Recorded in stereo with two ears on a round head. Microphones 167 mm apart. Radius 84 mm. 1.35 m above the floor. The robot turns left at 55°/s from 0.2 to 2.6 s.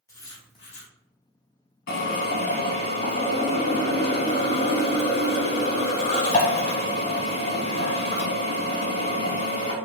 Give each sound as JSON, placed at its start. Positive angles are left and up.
{"t": 0.1, "sound": "writing", "azimuth_deg": 160, "distance_m": 1.0}
{"t": 1.9, "sound": "a drill", "azimuth_deg": 85, "distance_m": 1.4}